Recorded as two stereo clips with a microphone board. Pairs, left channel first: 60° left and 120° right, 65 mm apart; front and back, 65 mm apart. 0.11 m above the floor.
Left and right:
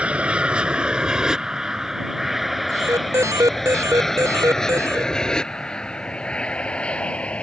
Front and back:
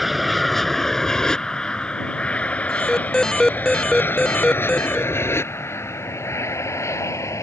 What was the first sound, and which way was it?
An aircraft, 95° right.